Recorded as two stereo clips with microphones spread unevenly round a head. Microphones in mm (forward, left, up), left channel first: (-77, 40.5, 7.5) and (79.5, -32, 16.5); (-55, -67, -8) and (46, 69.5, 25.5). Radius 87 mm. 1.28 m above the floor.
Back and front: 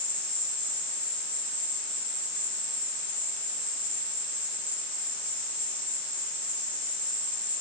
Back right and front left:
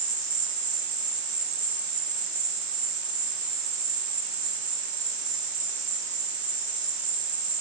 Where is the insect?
90° left, 2.5 m.